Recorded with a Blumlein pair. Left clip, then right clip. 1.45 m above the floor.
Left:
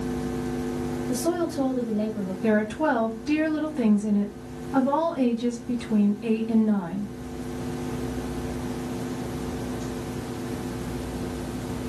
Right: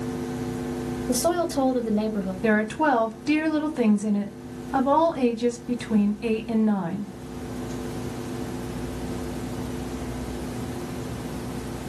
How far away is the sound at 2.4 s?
About 0.8 m.